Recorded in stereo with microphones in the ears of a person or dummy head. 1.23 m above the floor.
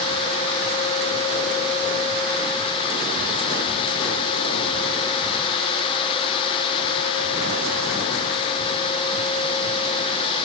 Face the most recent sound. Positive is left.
No sound to turn to.